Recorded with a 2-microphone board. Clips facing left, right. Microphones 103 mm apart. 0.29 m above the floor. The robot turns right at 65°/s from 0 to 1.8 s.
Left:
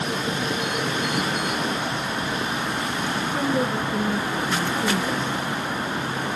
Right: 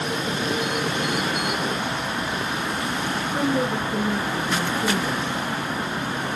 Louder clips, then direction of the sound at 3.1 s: Even; 5° right (ahead or behind).